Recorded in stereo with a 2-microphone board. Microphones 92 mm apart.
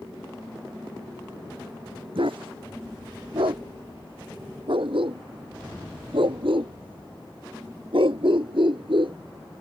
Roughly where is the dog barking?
Right.